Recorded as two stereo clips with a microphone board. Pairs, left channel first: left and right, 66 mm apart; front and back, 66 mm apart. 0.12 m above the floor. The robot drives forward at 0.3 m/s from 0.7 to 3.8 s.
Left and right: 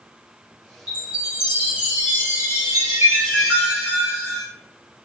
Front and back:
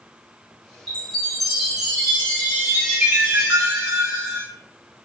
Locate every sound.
0.9 s a chime: 65° right, 1.3 m; by 4.5 s 150° right, 1.5 m